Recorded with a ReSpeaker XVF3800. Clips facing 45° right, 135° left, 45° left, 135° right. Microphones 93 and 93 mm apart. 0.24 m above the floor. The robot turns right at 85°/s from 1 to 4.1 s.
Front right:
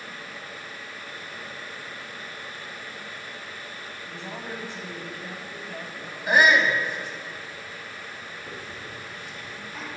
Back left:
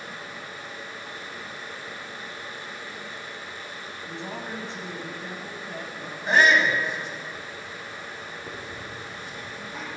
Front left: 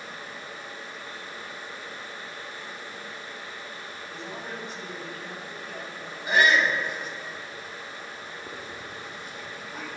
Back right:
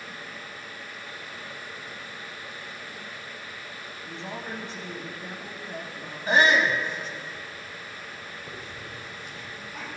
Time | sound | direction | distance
4.1 | a man speaking | 175° right | 2 m
6.3 | a shout | 115° right | 2.0 m
8.5 | a hiss | 75° left | 3.5 m